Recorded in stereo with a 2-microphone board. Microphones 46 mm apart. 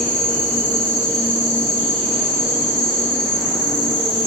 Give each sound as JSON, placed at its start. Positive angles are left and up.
{"t": 0.0, "sound": "an insect", "side_deg": 10, "distance_m": 1.0}